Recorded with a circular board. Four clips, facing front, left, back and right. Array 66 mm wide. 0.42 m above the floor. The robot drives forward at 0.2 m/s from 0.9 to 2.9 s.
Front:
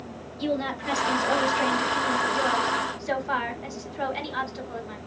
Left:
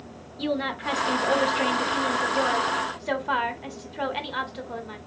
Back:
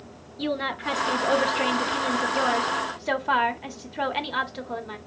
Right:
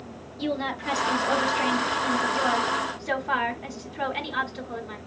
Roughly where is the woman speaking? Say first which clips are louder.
Left 1 dB, even; behind left.